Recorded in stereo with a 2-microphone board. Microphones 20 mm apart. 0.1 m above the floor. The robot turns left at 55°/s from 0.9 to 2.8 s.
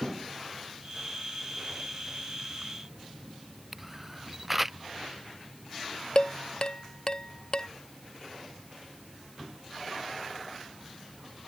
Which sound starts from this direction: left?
Dishes clattering, at 6.2 s.